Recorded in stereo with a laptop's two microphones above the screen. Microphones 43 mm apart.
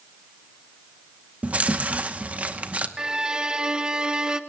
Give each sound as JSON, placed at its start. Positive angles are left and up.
{"t": 1.4, "sound": "chewing", "side_deg": -30, "distance_m": 1.0}
{"t": 3.0, "sound": "a violin", "side_deg": -20, "distance_m": 0.6}